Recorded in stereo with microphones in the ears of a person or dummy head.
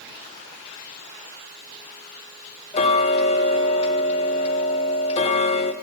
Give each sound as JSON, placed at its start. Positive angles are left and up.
{"t": 2.7, "sound": "ticking", "side_deg": 30, "distance_m": 0.8}